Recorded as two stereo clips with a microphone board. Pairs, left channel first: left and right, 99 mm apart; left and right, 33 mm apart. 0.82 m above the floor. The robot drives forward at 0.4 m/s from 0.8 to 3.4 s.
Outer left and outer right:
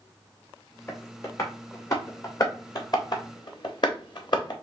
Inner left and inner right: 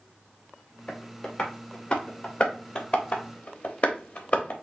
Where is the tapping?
25° left (ahead or behind), 2.0 m; by 4.5 s 50° left (ahead or behind), 1.2 m.